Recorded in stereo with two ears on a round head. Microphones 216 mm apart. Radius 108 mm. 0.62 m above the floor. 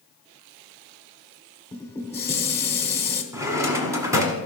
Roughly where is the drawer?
Centre.